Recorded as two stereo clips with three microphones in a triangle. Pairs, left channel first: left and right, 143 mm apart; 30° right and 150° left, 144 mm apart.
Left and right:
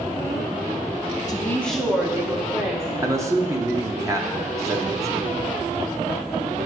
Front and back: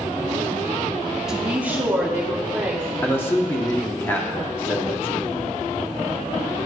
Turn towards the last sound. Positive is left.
turn(degrees=-75)